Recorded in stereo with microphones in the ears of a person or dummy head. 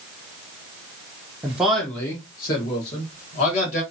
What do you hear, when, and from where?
1.4 s a man speaking: 15° right (ahead or behind), 0.6 m; by 3.8 s 40° left (ahead or behind), 1.5 m